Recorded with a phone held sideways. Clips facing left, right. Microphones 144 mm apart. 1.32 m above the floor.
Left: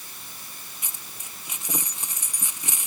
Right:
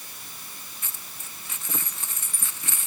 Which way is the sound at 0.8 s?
20° left (ahead or behind).